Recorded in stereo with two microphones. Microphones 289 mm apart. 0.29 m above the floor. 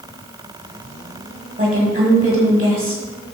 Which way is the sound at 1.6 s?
30° right (ahead or behind).